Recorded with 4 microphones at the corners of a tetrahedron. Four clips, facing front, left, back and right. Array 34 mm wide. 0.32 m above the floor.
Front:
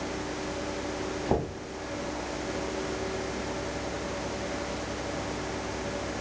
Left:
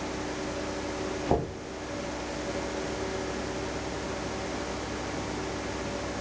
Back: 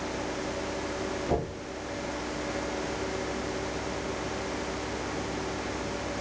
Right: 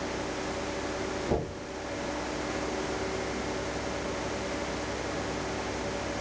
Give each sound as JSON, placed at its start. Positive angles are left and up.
{"t": 1.3, "sound": "knocking", "azimuth_deg": 55, "distance_m": 1.3}